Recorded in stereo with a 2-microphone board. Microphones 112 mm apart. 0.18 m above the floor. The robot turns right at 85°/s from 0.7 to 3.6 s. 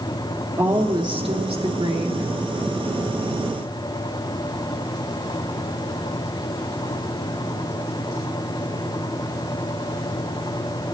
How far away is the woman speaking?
About 3 m.